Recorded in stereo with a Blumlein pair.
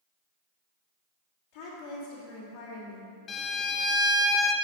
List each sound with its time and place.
1.5 s a woman speaking: 55° left, 2.5 m
3.3 s a violin: 20° left, 0.9 m